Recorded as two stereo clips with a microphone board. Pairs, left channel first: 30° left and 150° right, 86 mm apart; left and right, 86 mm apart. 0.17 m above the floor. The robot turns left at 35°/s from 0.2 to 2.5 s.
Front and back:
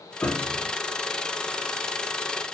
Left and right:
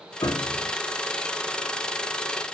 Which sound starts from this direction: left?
A piano, at 0.2 s.